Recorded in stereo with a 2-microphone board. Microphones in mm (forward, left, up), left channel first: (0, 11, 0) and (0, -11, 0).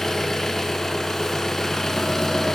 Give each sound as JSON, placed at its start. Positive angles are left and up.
{"t": 0.0, "sound": "an engine running", "side_deg": 25, "distance_m": 2.0}